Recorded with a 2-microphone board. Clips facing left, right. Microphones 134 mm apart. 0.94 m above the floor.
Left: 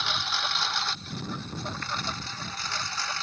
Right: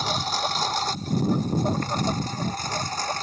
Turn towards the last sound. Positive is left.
turn(degrees=-45)  # may be behind; listen again after turning